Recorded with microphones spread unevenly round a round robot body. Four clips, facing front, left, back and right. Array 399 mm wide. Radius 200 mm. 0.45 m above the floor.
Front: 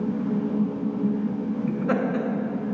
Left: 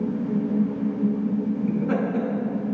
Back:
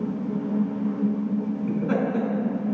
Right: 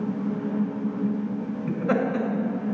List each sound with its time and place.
1.7 s laughter: 60° right, 3 m